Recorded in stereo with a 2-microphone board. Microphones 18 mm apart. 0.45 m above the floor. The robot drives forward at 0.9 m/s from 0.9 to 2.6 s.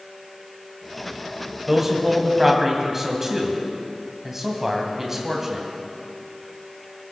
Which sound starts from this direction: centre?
A man speaking, at 1.7 s.